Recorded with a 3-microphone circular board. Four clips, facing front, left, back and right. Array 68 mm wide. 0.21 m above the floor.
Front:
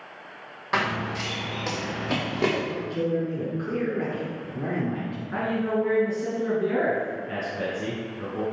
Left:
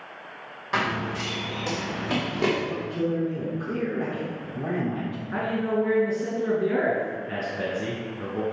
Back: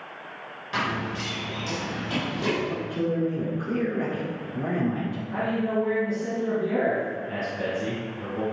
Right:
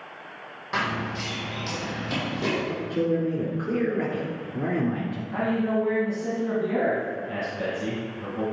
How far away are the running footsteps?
About 3 m.